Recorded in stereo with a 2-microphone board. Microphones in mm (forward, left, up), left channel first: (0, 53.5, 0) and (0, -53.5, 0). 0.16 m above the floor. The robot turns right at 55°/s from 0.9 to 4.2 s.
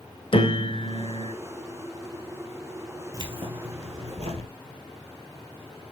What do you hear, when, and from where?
0.3 s a piano: 60° left (ahead or behind), 0.8 m
3.1 s keys jangling: 135° right, 2.5 m; by 4.5 s 80° right, 2.5 m